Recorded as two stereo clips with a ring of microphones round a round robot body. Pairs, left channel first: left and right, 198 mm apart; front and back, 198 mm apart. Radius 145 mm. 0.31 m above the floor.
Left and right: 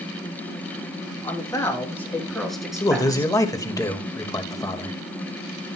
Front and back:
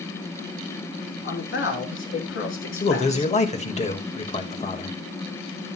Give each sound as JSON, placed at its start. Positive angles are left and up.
{"t": 1.2, "sound": "a man speaking", "azimuth_deg": 20, "distance_m": 3.5}
{"t": 2.8, "sound": "a man speaking", "azimuth_deg": 25, "distance_m": 1.7}